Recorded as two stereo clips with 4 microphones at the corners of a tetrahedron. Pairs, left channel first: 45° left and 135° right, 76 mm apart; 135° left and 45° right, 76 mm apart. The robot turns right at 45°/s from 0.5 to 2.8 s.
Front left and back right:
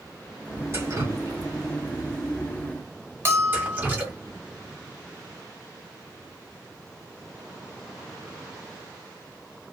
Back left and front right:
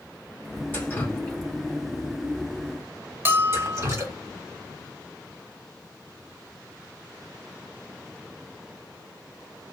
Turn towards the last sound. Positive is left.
turn(degrees=-95)